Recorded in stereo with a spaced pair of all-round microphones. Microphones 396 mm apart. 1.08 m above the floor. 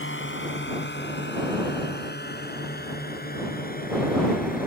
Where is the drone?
30° left (ahead or behind); by 4.7 s 20° left (ahead or behind).